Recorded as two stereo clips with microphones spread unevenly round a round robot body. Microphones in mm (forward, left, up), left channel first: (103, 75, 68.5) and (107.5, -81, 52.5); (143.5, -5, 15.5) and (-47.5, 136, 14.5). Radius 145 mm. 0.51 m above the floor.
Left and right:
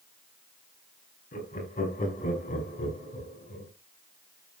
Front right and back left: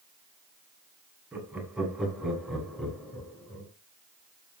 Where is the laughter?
60° left, 5 m; by 3.7 s 50° left, 7 m.